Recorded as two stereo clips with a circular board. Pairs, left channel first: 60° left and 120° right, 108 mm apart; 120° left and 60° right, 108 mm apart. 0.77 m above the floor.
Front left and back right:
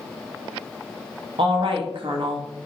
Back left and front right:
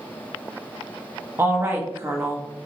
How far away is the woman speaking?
About 0.7 m.